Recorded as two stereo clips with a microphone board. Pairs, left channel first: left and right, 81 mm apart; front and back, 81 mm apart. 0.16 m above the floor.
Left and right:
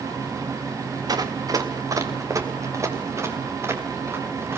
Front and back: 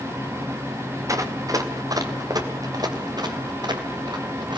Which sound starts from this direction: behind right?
Running footsteps, at 1.1 s.